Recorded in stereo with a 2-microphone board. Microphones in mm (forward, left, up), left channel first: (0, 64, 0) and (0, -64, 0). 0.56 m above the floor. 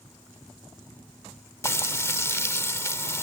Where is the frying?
20° left (ahead or behind).